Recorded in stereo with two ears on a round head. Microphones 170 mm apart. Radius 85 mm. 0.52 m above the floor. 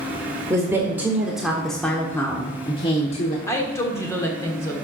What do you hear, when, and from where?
0.5 s a woman speaking: 15° right (ahead or behind), 1.6 m; by 3.4 s 40° left (ahead or behind), 1.2 m
3.5 s a woman speaking: 15° left (ahead or behind), 1.6 m